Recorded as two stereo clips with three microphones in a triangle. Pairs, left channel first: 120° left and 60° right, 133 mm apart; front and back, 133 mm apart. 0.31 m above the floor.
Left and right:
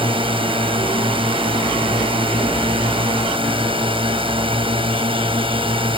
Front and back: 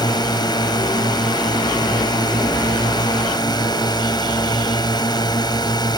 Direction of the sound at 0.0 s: 40° right.